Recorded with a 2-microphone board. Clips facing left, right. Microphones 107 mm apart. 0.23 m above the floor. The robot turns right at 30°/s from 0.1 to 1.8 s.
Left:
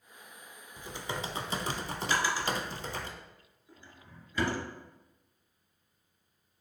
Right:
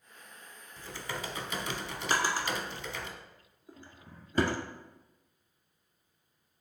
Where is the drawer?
45° right (ahead or behind), 0.9 m.